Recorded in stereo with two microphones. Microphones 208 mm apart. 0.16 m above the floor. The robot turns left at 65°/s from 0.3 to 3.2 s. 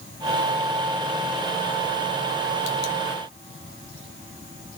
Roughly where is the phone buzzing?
I don't hear a phone buzzing.